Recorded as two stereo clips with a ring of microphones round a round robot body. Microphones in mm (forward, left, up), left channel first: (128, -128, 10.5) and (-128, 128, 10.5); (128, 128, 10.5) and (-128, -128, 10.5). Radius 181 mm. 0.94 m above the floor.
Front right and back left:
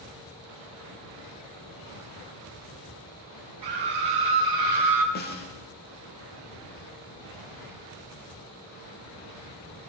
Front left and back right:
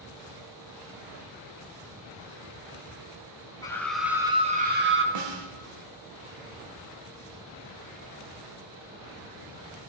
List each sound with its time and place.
3.6 s a scream: 125° left, 1.4 m; by 5.0 s 170° left, 1.4 m
5.2 s a snare drum: 110° right, 1.3 m